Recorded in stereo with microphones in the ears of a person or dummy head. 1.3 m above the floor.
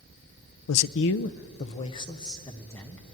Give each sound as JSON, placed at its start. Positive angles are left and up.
{"t": 0.7, "sound": "a man speaking", "side_deg": 80, "distance_m": 0.7}